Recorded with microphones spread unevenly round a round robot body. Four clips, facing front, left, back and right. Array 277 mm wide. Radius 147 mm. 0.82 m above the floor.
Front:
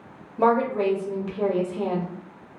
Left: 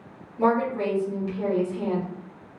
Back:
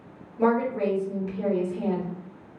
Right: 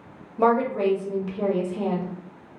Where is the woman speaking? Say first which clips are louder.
Right 2 dB, front 2 dB; 35° right, 1.0 m.